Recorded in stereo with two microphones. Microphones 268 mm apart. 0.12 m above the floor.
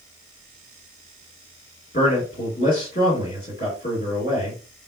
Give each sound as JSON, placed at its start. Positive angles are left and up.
{"t": 1.9, "sound": "a man speaking", "side_deg": 35, "distance_m": 2.0}